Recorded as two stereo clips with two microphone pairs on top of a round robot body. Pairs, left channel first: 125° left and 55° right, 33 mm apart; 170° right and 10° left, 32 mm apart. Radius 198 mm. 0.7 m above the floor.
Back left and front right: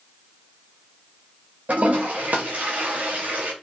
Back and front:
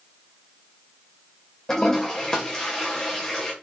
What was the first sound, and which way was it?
A toilet flushing, 100° right.